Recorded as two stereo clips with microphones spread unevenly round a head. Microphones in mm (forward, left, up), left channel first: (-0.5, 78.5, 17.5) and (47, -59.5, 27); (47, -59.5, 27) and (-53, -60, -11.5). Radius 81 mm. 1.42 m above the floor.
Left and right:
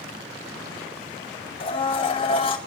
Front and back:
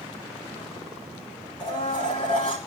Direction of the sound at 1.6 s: 55° left.